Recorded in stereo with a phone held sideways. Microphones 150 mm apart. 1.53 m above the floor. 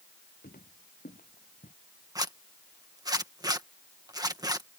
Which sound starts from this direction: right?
A zipper, at 2.1 s.